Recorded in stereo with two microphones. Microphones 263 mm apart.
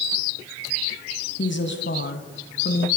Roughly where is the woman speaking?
Left.